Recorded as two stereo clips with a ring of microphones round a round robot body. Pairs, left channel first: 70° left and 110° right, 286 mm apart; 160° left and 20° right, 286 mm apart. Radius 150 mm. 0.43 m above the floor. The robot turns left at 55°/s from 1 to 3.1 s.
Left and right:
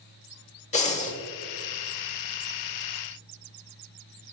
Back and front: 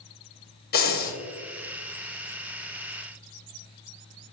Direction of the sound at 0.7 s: 120° left.